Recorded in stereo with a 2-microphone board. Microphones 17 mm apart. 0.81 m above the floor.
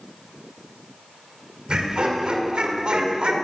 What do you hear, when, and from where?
1.7 s laughter: 60° right (ahead or behind), 2.5 m; by 3.3 s 70° right (ahead or behind), 2.5 m